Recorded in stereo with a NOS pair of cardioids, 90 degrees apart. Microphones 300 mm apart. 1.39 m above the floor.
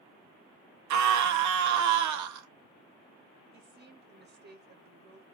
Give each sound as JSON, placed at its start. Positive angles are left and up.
{"t": 0.9, "sound": "a scream", "azimuth_deg": -65, "distance_m": 0.7}
{"t": 3.5, "sound": "a woman speaking", "azimuth_deg": -35, "distance_m": 1.0}